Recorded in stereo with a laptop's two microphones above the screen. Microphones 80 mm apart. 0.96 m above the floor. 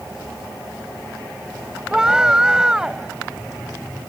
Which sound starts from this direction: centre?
A scream, at 1.9 s.